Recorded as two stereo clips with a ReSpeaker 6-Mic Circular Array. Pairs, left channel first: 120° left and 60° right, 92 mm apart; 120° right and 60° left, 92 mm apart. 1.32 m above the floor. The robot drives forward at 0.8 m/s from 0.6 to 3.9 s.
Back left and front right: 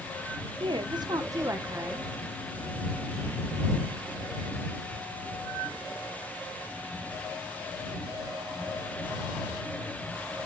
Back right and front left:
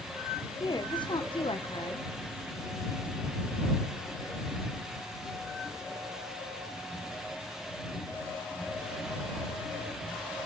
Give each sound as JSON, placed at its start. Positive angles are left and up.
{"t": 0.6, "sound": "a woman speaking", "azimuth_deg": -80, "distance_m": 1.1}